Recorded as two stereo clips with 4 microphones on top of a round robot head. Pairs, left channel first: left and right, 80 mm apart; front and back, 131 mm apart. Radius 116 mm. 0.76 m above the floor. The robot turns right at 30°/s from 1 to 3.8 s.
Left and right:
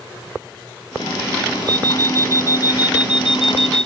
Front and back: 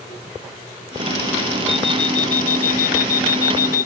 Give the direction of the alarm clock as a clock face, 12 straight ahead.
2 o'clock.